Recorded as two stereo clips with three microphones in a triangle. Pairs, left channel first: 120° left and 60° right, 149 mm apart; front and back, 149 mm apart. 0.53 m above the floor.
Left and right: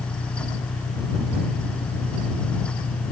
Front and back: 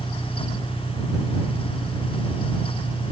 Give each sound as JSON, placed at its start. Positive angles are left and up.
{"t": 0.0, "sound": "an engine running", "azimuth_deg": 95}